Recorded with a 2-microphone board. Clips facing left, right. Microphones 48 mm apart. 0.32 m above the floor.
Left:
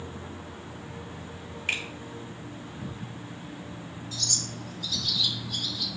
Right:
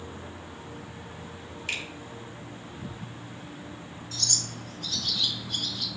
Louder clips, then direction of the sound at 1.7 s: Left 3 dB; 30° left (ahead or behind).